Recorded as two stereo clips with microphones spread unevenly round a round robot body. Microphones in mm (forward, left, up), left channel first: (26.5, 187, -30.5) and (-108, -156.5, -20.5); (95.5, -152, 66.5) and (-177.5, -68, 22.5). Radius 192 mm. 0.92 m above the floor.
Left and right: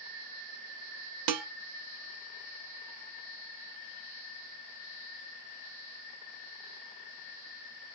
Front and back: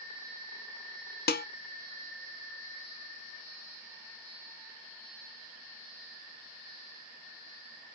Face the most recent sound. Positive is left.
turn(degrees=-80)